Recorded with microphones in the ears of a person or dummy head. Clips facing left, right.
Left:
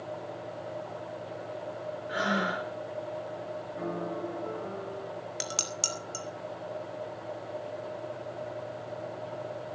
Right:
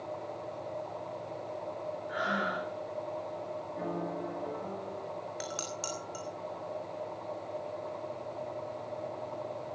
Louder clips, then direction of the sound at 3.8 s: Left 2 dB; centre (ahead or behind).